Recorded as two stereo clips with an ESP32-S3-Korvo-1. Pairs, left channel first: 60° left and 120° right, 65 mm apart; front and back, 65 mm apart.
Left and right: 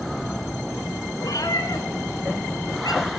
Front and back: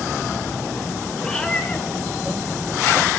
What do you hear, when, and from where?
1.2 s a cat meowing: 85° left, 1.6 m; by 3.0 s 55° left, 3 m